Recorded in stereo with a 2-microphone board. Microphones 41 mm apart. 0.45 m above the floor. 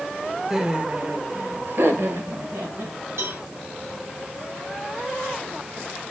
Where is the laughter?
10° right (ahead or behind), 1.4 m; by 3.0 s 65° right (ahead or behind), 3 m.